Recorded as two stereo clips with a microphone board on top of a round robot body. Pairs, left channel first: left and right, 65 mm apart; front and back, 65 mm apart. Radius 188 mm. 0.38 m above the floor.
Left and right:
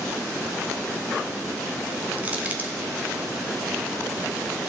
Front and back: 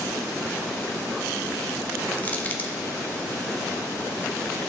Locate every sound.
2.2 s crushing: 45° right, 1.4 m